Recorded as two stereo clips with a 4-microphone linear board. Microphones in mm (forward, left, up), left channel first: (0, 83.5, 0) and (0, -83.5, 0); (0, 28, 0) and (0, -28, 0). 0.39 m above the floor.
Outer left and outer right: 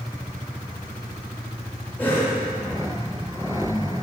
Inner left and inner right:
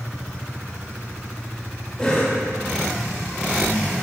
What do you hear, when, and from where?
2.0 s a cough: 10° left (ahead or behind), 1.3 m